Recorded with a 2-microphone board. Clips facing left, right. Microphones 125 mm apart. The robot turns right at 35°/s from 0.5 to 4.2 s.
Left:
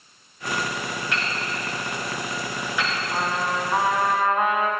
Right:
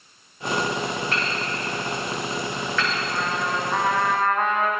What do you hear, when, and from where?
1.1 s hammering: 45° right (ahead or behind), 4.5 m; by 3.0 s 20° left (ahead or behind), 4.5 m
3.1 s a trumpet: 135° left, 1.6 m; by 4.7 s 170° left, 1.6 m